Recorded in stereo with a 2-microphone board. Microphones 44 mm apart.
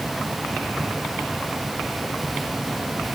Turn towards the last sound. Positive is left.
No sound to turn to.